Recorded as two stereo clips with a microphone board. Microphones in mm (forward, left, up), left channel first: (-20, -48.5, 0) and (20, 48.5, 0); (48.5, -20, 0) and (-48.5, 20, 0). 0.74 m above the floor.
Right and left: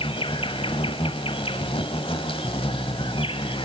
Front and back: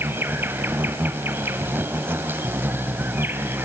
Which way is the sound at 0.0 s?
135° right.